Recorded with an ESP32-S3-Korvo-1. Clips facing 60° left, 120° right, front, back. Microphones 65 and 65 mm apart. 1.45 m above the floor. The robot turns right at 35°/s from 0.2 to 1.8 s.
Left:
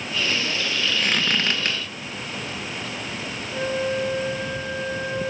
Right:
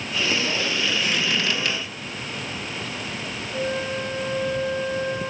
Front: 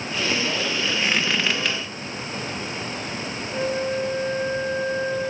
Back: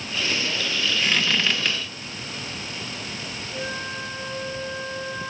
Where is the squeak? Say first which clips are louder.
Left 1 dB, even; 65° left, 1.2 m; by 1.8 s 90° left, 1.2 m.